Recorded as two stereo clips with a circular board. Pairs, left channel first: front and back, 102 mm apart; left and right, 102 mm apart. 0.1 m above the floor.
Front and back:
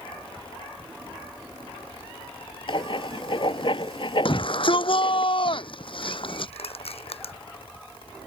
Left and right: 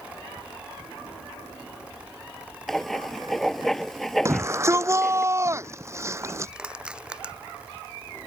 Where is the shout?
30° right.